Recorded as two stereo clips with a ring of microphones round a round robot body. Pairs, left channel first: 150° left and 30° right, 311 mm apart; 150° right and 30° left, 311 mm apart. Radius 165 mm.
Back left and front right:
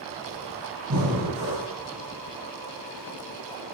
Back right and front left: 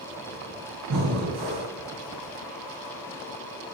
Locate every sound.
0.9 s breathing: 5° left, 2.5 m